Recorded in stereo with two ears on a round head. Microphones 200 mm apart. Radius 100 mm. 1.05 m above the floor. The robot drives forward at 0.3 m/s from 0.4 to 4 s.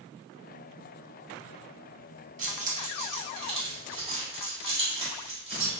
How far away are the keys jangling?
About 0.9 m.